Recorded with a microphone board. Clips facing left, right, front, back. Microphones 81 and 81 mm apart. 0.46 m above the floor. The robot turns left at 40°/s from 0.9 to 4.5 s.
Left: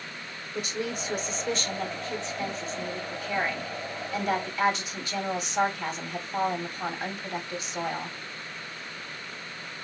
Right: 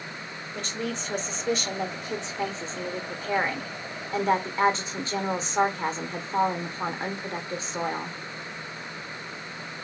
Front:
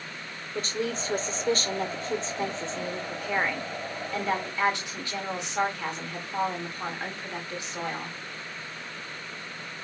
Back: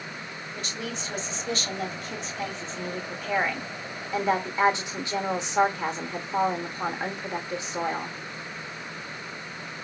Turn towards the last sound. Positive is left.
turn(degrees=-125)